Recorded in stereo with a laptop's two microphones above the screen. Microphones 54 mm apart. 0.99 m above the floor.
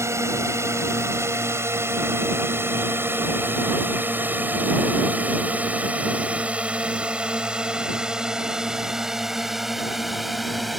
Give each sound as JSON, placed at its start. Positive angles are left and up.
{"t": 0.0, "sound": "a drone", "side_deg": -65}